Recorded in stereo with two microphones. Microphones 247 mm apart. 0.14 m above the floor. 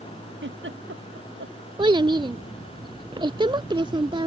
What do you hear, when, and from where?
0.4 s a giggle: 50° right (ahead or behind)
1.8 s a child speaking: 20° right (ahead or behind)